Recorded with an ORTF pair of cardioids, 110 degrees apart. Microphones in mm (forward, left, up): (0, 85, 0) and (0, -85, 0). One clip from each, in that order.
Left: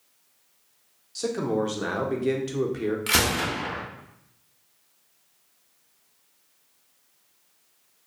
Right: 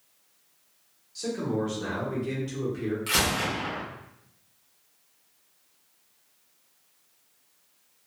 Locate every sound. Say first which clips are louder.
1.1 s a man speaking: left 4 dB; 40° left, 0.8 m
3.1 s a gunshot: left 2 dB; 30° left, 0.8 m